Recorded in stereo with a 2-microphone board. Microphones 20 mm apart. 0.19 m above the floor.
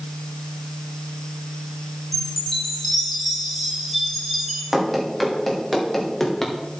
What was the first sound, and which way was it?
A chime, 5° left (ahead or behind).